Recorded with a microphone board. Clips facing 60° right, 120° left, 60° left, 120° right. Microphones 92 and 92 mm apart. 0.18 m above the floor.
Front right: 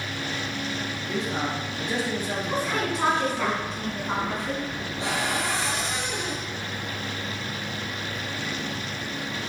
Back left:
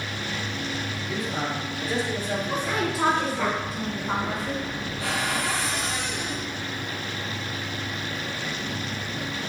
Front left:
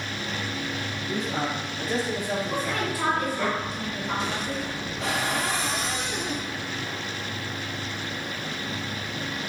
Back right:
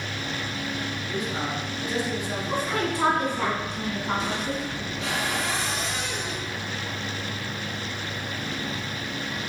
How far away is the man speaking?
About 3 m.